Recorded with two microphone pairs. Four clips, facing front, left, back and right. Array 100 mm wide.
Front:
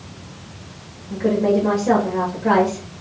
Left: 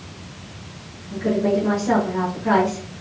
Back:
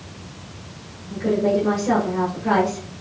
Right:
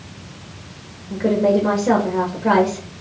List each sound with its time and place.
1.1 s a woman speaking: 65° right, 2 m